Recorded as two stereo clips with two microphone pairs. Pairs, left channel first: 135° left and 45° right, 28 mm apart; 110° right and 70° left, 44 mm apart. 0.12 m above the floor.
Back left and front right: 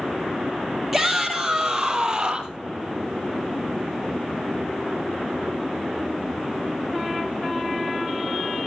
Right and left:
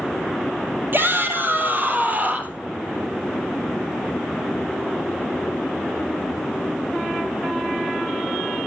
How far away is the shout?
About 3.5 m.